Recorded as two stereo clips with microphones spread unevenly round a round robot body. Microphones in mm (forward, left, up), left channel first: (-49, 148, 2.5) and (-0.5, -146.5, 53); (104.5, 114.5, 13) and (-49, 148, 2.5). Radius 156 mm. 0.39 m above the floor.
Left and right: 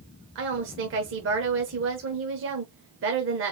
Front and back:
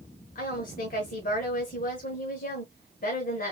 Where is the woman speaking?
30° right, 1.2 m.